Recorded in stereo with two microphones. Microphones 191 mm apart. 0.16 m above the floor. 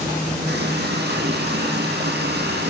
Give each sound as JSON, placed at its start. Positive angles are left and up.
{"t": 0.5, "sound": "a running tap", "side_deg": -60, "distance_m": 4.5}